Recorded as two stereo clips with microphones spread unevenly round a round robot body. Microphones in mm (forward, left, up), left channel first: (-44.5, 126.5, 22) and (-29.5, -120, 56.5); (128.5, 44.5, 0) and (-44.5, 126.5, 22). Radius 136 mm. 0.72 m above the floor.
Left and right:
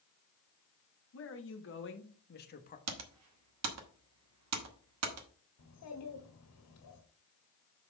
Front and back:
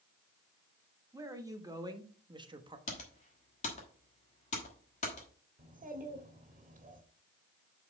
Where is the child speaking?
105° left, 1.4 m.